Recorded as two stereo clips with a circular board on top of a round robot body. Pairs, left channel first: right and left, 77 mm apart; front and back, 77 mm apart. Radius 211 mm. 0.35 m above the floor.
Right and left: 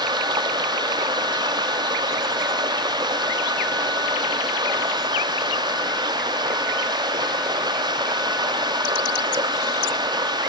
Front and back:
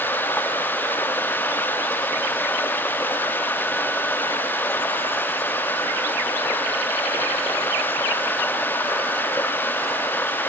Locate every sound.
0.0 s running water: 65° left